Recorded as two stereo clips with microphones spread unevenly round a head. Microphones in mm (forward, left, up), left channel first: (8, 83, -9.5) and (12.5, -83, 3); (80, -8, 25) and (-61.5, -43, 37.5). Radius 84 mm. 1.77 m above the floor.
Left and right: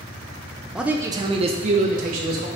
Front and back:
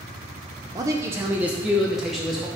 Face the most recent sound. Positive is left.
turn(degrees=-80)